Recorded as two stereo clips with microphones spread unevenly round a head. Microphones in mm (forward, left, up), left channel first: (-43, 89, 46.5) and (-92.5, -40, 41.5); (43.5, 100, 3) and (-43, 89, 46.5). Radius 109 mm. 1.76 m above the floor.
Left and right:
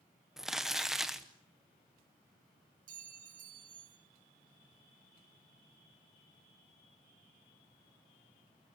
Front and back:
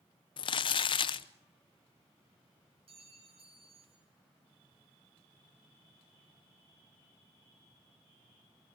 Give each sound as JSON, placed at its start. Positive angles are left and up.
{"t": 0.4, "sound": "crumpling", "azimuth_deg": -20, "distance_m": 0.7}
{"t": 2.9, "sound": "a clink", "azimuth_deg": -125, "distance_m": 4.5}